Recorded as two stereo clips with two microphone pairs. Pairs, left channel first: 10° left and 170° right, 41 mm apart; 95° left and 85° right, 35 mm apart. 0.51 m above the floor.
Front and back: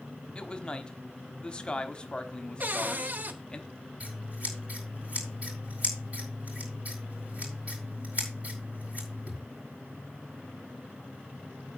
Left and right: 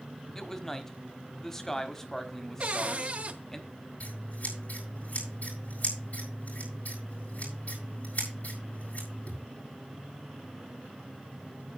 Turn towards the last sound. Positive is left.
turn(degrees=135)